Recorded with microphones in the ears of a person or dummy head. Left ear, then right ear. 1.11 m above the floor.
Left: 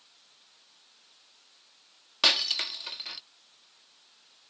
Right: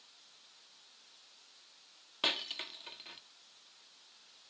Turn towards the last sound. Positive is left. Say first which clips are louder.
# left 11 dB
turn(degrees=40)  # may be behind; listen again after turning